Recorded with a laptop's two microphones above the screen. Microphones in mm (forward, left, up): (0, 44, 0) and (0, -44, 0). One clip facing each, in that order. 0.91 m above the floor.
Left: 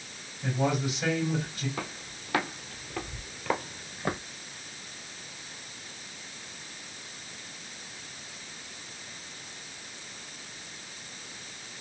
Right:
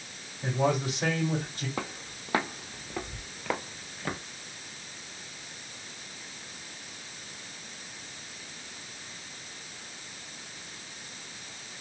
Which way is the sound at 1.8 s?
35° right (ahead or behind).